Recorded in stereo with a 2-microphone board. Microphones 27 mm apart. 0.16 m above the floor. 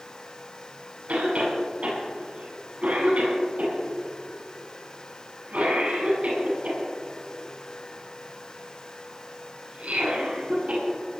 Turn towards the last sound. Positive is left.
turn(degrees=-55)  # may be behind; listen again after turning